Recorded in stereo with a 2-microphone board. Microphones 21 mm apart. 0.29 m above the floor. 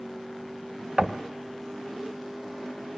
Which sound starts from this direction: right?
Knocking, at 1.0 s.